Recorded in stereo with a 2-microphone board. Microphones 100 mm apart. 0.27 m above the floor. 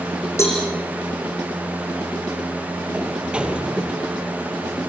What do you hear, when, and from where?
0.4 s a cowbell: 25° left (ahead or behind), 7 m
2.9 s a sliding door: 10° right (ahead or behind), 2.5 m